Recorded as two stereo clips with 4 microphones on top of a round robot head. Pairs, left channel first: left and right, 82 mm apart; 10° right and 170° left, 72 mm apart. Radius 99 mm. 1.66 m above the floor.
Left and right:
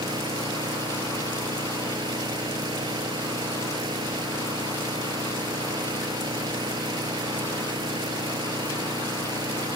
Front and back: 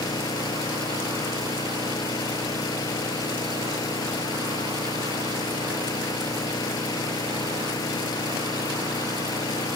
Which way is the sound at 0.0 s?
50° right.